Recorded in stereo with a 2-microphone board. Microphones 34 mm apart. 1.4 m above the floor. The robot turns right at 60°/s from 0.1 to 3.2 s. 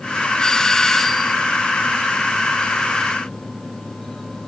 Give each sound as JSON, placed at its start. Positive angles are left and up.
{"t": 0.4, "sound": "a doorbell", "side_deg": 15, "distance_m": 0.7}